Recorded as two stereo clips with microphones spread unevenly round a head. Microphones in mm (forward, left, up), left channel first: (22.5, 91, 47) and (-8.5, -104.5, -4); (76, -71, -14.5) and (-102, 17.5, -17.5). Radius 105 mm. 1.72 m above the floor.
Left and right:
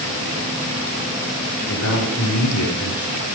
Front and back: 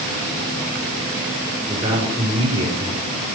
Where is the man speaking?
85° left, 6 m.